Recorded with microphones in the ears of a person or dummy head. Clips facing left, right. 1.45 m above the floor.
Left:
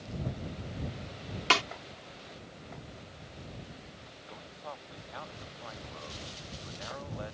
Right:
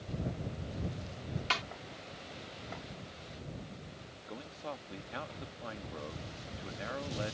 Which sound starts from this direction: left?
A snare drum, at 1.5 s.